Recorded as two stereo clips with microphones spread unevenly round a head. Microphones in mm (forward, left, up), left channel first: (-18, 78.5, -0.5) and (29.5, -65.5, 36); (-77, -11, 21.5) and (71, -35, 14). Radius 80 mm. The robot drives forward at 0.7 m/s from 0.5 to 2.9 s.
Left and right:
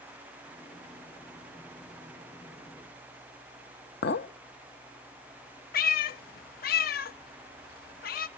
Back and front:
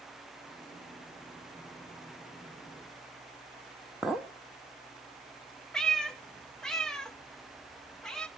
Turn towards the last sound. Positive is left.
turn(degrees=90)